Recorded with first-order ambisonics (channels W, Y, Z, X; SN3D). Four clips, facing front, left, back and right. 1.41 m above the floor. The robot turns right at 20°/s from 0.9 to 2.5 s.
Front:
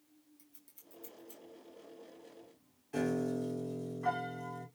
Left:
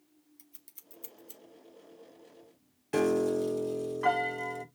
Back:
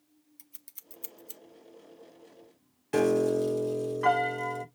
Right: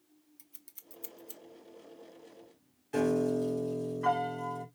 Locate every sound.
0.4 s scissors: 175° right, 0.7 m; by 1.4 s 165° right, 0.7 m
2.9 s a piano: 150° left, 1.6 m